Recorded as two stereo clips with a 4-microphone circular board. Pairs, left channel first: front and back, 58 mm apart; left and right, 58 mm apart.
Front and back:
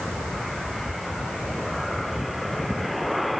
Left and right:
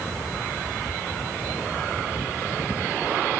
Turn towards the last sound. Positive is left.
No sound to turn to.